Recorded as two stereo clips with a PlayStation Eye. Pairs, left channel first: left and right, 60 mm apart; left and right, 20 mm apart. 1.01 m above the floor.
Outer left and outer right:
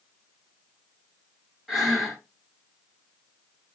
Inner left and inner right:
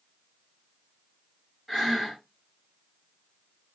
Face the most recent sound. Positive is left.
turn(degrees=-5)  # may be behind; listen again after turning